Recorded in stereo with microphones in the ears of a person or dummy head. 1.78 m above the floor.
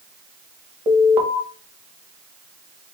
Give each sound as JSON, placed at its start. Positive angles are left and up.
{"t": 0.9, "sound": "an alarm", "side_deg": -5, "distance_m": 1.4}